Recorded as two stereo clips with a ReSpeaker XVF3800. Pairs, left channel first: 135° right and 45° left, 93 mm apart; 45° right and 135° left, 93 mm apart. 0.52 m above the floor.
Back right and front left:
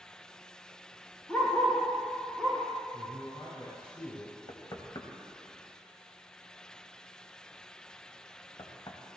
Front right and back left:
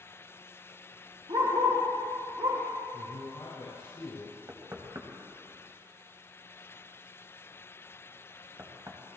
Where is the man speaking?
95° right, 6 m.